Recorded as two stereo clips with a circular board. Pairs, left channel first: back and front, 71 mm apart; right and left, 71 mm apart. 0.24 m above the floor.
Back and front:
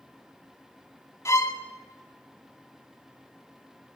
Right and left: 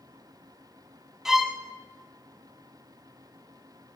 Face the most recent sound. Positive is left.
turn(degrees=170)